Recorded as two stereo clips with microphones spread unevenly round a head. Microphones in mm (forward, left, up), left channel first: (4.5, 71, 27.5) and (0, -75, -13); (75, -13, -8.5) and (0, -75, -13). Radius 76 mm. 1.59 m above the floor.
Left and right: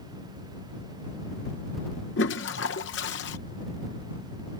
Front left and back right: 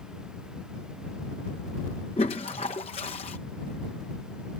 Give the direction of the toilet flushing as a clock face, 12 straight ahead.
9 o'clock.